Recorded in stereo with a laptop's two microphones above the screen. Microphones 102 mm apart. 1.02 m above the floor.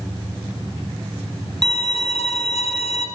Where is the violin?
75° left (ahead or behind), 3 m.